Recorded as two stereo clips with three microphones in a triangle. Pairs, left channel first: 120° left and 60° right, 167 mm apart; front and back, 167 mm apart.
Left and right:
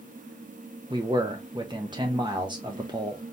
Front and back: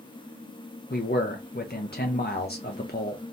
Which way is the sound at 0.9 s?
5° left.